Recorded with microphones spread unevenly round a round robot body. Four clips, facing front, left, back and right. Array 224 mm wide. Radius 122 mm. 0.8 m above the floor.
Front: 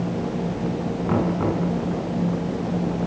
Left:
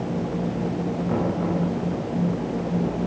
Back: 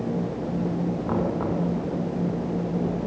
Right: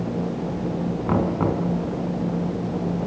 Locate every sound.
1.1 s knocking: 70° right, 5.5 m